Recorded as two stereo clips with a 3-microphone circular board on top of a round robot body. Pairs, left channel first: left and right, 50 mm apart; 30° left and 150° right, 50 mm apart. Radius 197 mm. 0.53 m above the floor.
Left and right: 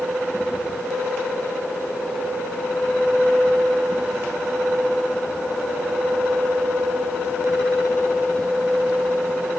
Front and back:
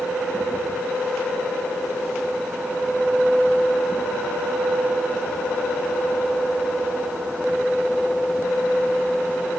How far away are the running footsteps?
I don't hear running footsteps.